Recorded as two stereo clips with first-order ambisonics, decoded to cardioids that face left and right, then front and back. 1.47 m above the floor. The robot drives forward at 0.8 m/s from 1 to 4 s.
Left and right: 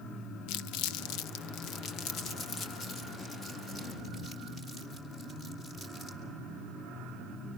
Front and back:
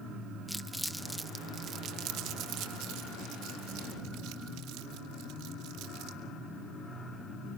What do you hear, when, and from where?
0.5 s crumpling: 90° left, 0.7 m; by 6.2 s 165° left, 2.5 m